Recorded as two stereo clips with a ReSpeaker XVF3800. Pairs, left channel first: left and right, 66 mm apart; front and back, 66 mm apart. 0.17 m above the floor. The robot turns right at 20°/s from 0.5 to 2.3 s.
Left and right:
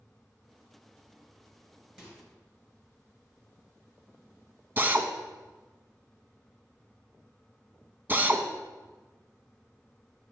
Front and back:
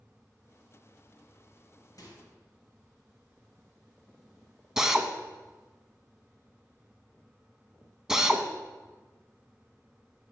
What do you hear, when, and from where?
2.0 s a microwave: 15° right, 2.5 m; by 2.2 s 10° right, 2.5 m
4.8 s a drill: 105° right, 0.6 m